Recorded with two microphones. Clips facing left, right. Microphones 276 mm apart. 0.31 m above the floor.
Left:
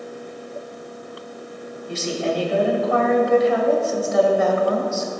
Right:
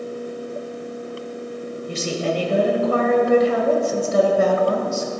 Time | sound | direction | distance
1.9 | a woman speaking | 40° right (ahead or behind) | 1.5 m